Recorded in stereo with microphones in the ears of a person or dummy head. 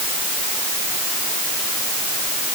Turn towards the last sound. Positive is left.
No sound to turn to.